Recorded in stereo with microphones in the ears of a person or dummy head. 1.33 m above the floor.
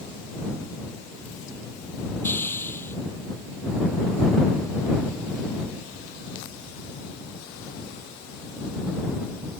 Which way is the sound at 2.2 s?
5° left (ahead or behind).